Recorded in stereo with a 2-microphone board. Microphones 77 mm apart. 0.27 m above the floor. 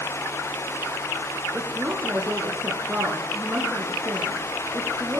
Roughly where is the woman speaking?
Right.